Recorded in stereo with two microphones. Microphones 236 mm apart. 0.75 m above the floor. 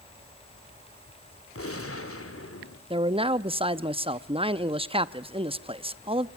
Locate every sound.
1.6 s a gunshot: 70° left (ahead or behind), 2.5 m
2.9 s a man speaking: 25° right (ahead or behind), 0.8 m